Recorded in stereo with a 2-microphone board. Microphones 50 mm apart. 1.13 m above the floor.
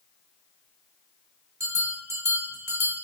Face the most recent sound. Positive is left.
turn(degrees=-75)  # may be behind; listen again after turning